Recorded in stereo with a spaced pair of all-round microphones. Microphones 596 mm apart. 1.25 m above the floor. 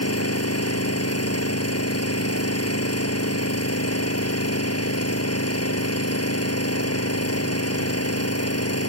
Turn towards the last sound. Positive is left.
turn(degrees=25)  # may be behind; listen again after turning